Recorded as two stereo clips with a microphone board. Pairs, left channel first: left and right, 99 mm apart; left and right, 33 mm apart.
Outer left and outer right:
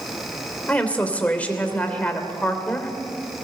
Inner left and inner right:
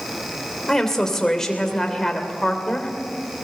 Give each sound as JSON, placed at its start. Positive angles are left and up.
{"t": 0.7, "sound": "a woman speaking", "side_deg": 15, "distance_m": 3.0}